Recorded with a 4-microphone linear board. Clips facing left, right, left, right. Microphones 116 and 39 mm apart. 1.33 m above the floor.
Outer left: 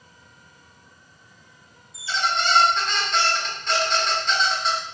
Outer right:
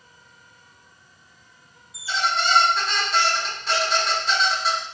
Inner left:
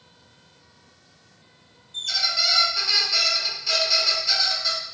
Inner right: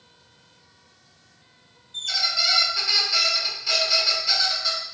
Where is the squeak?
5° right (ahead or behind), 0.9 m.